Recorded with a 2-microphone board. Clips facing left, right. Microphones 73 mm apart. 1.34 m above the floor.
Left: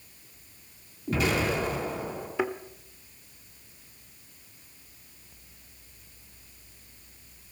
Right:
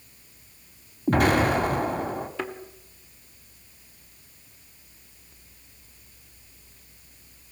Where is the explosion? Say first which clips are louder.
Right 6 dB; 50° right (ahead or behind), 1.9 m.